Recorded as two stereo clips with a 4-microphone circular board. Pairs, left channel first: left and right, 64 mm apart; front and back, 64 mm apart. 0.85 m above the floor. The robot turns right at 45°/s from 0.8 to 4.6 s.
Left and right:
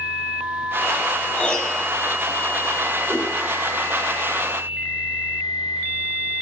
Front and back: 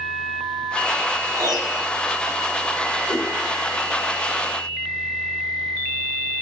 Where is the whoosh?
Straight ahead, 1.4 m; by 3.3 s 10° left, 1.4 m.